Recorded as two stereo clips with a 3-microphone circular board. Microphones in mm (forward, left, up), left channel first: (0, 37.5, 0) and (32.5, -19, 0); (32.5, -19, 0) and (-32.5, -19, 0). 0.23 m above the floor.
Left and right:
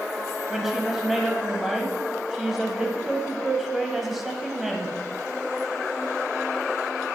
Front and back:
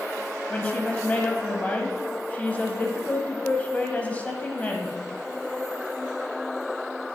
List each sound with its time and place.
0.5 s a woman speaking: 20° left, 1.0 m